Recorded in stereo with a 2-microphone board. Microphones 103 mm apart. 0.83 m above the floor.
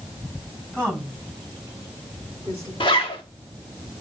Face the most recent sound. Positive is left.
turn(degrees=55)  # may be behind; listen again after turning